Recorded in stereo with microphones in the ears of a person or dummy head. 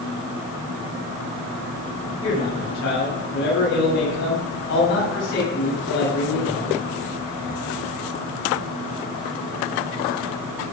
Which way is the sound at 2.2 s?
65° left (ahead or behind).